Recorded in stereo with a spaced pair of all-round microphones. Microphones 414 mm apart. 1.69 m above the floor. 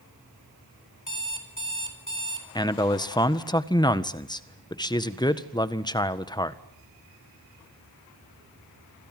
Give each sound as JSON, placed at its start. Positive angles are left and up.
{"t": 1.1, "sound": "an alarm clock", "side_deg": 45, "distance_m": 4.0}
{"t": 2.5, "sound": "a man speaking", "side_deg": 10, "distance_m": 1.5}